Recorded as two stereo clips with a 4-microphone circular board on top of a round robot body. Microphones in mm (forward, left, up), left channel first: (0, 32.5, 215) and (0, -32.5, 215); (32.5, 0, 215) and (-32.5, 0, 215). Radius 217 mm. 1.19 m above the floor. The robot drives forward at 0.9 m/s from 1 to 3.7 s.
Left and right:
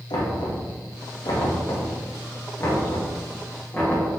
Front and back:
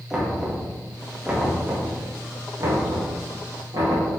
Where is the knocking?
95° left, 1.6 m; by 4.1 s 150° left, 3 m.